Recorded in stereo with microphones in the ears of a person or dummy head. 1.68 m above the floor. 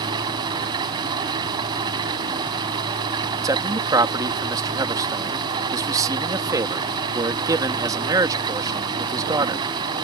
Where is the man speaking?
20° right (ahead or behind).